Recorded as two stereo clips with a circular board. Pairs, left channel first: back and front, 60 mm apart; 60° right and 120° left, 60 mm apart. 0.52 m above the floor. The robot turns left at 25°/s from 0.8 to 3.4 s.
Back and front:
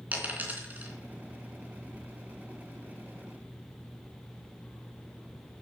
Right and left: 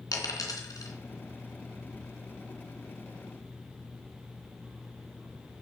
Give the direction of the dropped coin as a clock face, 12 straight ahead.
2 o'clock.